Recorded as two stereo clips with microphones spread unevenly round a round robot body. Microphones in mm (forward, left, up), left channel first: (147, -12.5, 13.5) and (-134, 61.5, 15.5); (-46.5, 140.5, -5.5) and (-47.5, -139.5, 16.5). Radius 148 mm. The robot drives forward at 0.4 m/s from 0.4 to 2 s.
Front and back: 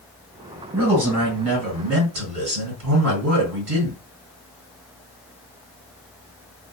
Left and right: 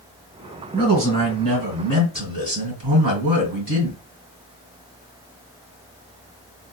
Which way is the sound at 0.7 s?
150° right.